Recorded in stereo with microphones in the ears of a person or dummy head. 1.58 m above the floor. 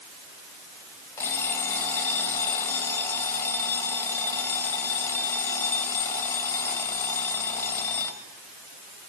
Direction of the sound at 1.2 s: 20° left (ahead or behind).